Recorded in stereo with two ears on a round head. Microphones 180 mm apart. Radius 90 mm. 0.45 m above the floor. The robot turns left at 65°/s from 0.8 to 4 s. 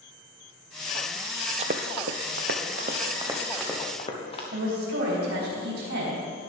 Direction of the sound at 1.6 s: 30° right (ahead or behind).